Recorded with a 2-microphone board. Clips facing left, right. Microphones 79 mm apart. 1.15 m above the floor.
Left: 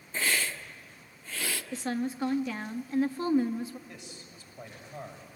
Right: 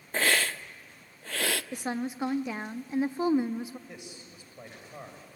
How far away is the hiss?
About 0.7 m.